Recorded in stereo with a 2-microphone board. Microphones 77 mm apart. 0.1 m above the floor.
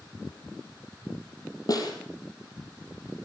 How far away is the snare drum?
About 4 m.